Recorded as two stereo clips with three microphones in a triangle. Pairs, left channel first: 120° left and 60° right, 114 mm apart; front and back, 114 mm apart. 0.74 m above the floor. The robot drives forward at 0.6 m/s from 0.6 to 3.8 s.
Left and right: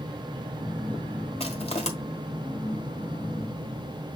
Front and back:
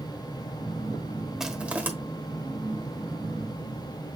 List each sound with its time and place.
1.4 s crushing: 95° left, 1.3 m; by 1.9 s 110° left, 1.3 m